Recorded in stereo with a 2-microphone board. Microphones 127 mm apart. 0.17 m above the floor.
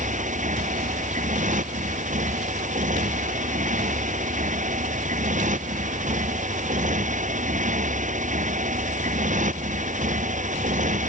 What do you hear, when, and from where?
0.0 s a motorcycle: 85° right